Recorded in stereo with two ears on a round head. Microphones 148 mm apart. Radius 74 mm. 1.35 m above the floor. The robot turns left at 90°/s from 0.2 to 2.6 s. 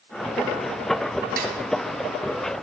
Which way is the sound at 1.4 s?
55° right (ahead or behind).